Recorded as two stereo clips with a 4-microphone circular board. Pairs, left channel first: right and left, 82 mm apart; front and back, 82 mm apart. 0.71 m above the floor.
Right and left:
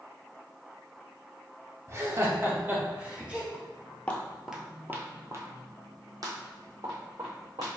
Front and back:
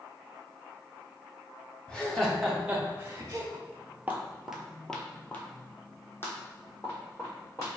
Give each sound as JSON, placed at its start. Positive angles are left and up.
{"t": 1.9, "sound": "laughter", "azimuth_deg": 65, "distance_m": 0.9}
{"t": 3.5, "sound": "footsteps", "azimuth_deg": -135, "distance_m": 0.9}